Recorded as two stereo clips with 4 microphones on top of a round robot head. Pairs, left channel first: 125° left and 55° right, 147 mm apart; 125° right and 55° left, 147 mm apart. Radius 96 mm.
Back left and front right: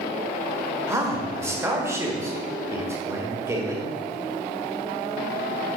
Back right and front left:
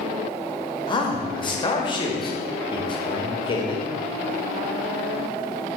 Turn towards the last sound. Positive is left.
turn(degrees=-110)